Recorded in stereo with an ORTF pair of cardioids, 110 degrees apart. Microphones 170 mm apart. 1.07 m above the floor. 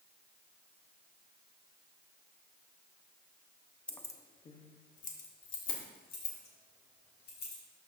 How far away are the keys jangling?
About 0.6 m.